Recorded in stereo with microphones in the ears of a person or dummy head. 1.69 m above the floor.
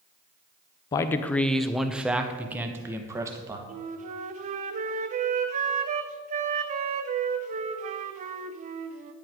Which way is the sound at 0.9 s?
25° left (ahead or behind).